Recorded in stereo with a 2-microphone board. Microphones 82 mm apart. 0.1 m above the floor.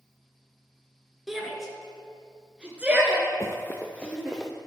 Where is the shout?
Centre (ahead or behind), 1.3 m; by 4.4 s 20° right (ahead or behind), 1.7 m.